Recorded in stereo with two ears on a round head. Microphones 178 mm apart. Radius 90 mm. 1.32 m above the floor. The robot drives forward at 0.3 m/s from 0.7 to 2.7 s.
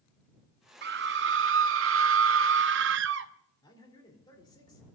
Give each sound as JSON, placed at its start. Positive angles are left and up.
{"t": 0.8, "sound": "a scream", "side_deg": -55, "distance_m": 0.7}
{"t": 3.6, "sound": "a man speaking", "side_deg": 25, "distance_m": 4.0}